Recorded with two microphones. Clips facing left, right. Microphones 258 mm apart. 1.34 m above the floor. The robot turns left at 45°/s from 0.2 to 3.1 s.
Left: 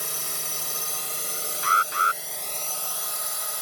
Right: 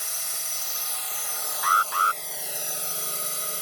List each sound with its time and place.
0.0 s a drone: 95° left; by 3.6 s 35° right
1.6 s an alarm: 30° left (ahead or behind); by 2.2 s 15° left (ahead or behind)